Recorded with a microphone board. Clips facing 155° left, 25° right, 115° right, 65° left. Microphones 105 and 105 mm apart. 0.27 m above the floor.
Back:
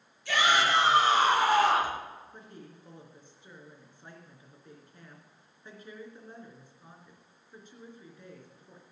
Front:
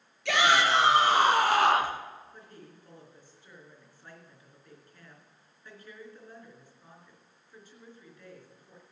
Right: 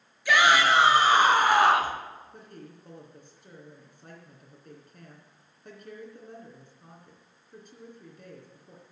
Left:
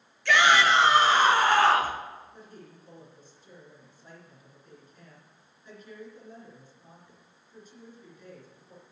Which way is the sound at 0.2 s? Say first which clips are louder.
Front 2 dB, even; 30° right.